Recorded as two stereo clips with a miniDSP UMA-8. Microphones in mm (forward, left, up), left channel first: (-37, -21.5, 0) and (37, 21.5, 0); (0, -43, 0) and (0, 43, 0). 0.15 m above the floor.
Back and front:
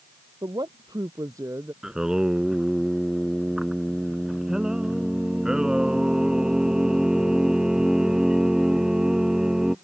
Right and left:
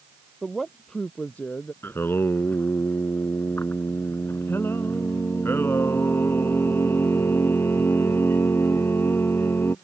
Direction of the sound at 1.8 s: 50° right.